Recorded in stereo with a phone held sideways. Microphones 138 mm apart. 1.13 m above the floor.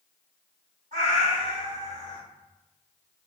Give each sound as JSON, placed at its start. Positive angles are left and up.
{"t": 0.9, "sound": "a cat meowing", "side_deg": -60, "distance_m": 1.8}